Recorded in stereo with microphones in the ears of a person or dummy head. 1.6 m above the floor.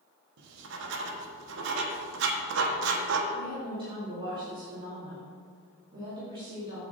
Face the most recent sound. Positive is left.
turn(degrees=-25)  # may be behind; listen again after turning